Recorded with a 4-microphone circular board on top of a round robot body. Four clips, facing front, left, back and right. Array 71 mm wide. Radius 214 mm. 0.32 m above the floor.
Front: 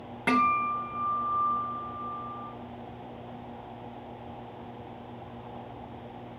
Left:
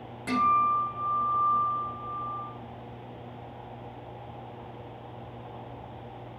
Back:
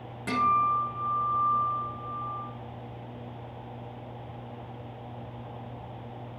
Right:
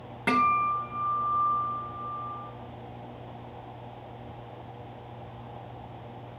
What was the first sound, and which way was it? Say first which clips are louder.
A guitar: even, back 1 dB; 45° right.